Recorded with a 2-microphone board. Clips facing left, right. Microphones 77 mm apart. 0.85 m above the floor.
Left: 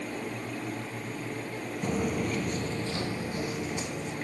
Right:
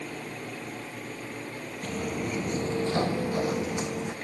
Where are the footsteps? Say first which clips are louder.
Left 2 dB; 20° left (ahead or behind), 0.8 m; by 4.1 s 65° right (ahead or behind), 1.9 m.